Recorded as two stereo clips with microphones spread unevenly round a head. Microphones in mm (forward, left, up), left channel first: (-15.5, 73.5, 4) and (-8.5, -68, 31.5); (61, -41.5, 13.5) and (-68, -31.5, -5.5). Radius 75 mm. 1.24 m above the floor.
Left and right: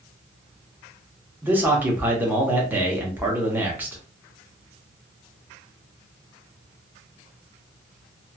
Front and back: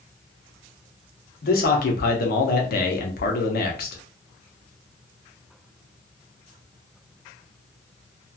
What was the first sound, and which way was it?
A man speaking, 5° right.